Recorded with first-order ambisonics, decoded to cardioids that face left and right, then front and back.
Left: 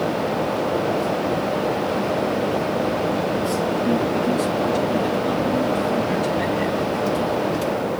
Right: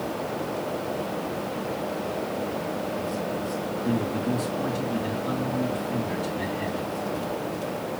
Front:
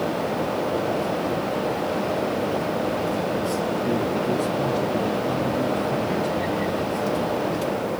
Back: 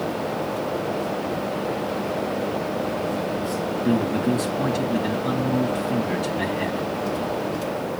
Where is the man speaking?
165° left, 3 m.